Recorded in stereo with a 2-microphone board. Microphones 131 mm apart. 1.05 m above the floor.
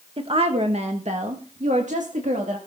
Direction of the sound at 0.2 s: 45° right (ahead or behind).